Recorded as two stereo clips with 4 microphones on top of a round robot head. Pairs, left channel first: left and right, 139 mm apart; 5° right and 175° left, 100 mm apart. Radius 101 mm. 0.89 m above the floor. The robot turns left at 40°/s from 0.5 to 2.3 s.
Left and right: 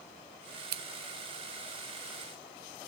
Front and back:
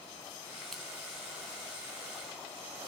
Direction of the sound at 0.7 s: 95° right.